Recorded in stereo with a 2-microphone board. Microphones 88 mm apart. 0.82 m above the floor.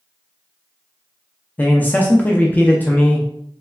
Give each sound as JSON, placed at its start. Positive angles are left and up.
{"t": 1.6, "sound": "a man speaking", "side_deg": 20, "distance_m": 0.5}